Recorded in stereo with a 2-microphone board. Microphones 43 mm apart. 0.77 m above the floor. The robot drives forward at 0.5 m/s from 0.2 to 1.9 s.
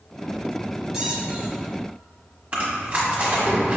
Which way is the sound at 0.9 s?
10° right (ahead or behind).